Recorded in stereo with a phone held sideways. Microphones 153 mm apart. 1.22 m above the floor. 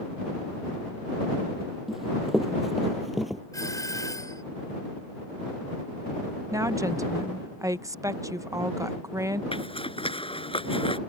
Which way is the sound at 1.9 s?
Centre (ahead or behind).